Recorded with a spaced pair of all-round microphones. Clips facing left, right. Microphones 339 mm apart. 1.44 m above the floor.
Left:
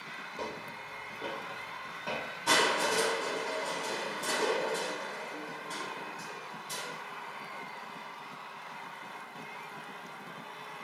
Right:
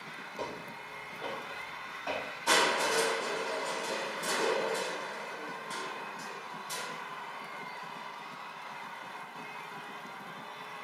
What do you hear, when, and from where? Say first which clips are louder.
0.4 s footsteps: even; 15° left (ahead or behind), 1.6 m; by 3.0 s 60° left (ahead or behind), 3 m
2.5 s crushing: even; 45° left (ahead or behind), 1.9 m